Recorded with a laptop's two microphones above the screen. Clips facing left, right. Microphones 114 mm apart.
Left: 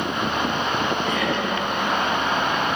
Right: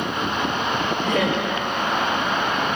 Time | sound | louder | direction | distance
1.0 | laughter | right 2 dB | 60° right (ahead or behind) | 4.5 m